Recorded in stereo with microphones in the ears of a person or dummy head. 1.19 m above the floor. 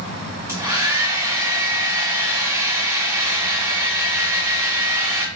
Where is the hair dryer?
10° right (ahead or behind), 0.7 m.